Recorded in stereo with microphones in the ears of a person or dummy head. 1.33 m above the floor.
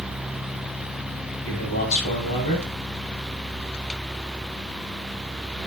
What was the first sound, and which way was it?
A man speaking, 50° left (ahead or behind).